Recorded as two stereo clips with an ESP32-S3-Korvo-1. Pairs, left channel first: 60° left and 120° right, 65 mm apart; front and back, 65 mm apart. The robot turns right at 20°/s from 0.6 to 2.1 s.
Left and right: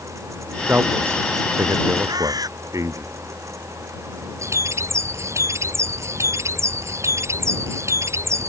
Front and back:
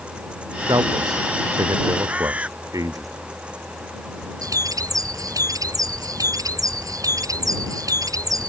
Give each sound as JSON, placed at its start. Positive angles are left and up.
{"t": 0.7, "sound": "a man speaking", "azimuth_deg": 180}
{"t": 2.1, "sound": "a bird", "azimuth_deg": -110}
{"t": 4.4, "sound": "a bird", "azimuth_deg": -160}